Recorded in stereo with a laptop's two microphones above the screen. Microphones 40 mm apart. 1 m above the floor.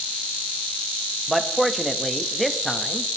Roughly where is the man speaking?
Centre.